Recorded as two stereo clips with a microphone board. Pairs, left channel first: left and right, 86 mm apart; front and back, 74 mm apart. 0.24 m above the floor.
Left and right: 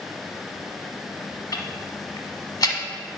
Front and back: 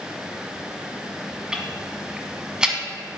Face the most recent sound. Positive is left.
turn(degrees=105)